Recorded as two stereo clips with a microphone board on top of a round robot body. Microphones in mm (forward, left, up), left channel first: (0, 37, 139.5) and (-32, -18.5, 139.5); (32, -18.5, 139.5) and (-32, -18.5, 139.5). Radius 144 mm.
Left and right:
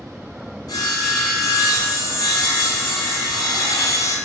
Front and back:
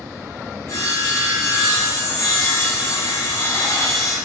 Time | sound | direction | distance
0.7 | sawing | 35° left | 3.5 m